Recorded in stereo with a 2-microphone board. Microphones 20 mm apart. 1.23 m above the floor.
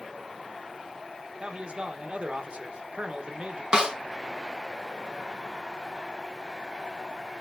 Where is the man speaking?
65° right (ahead or behind), 0.9 m.